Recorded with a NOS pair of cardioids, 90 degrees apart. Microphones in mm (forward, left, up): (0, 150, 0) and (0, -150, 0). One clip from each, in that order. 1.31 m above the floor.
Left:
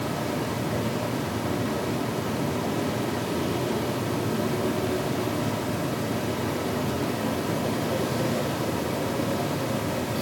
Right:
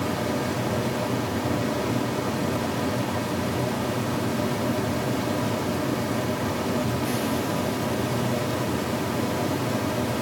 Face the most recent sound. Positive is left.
turn(degrees=-15)